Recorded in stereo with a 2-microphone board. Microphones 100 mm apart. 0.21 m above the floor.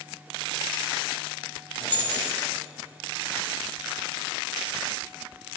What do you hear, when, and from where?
1.8 s keys jangling: 20° left (ahead or behind), 2 m